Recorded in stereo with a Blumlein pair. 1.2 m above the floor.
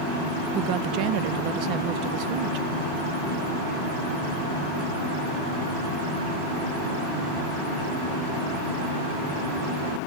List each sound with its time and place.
0.6 s a woman speaking: 40° right, 0.5 m